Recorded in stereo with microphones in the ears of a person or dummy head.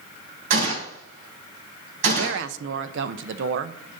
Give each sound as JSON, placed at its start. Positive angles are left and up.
{"t": 0.5, "sound": "a gunshot", "side_deg": -60, "distance_m": 2.5}
{"t": 2.2, "sound": "a woman speaking", "side_deg": -70, "distance_m": 0.7}